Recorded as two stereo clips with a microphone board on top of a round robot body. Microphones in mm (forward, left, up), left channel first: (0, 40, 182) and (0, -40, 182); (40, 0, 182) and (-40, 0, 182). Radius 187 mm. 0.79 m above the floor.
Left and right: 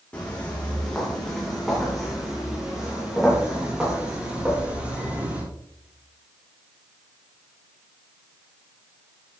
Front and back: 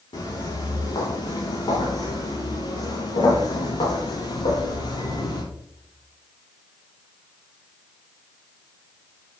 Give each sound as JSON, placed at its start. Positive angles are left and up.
{"t": 0.1, "sound": "footsteps", "azimuth_deg": 15, "distance_m": 4.0}